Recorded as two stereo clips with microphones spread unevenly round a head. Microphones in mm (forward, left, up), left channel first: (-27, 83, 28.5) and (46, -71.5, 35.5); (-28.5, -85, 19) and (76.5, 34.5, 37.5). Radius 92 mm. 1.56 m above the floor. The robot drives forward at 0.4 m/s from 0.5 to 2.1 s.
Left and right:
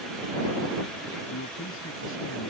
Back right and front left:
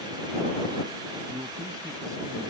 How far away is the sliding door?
I don't hear a sliding door.